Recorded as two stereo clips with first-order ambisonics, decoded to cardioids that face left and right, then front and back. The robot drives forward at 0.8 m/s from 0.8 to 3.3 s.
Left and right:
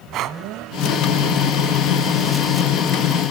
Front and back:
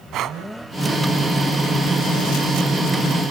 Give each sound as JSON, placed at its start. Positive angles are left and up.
{"t": 0.1, "sound": "breathing", "azimuth_deg": -135, "distance_m": 0.9}